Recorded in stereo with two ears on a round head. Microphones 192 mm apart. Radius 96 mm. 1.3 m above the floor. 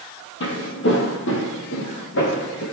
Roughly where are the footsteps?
Left.